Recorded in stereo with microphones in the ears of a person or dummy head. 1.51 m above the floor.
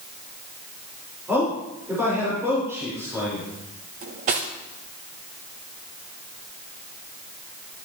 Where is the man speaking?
5° right (ahead or behind), 5.5 m.